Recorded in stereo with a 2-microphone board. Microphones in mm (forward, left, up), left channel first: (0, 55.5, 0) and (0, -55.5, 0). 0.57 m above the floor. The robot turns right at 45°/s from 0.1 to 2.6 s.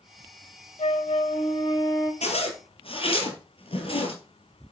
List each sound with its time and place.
0.8 s a flute: 90° left, 1.3 m; by 2.1 s 150° left, 1.3 m
2.2 s a zipper: 70° left (ahead or behind), 1.9 m; by 4.1 s 55° left (ahead or behind), 1.9 m